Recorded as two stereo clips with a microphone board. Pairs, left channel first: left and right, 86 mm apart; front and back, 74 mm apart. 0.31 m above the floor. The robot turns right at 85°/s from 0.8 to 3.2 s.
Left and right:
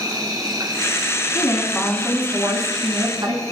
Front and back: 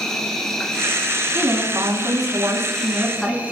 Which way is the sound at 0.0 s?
80° right.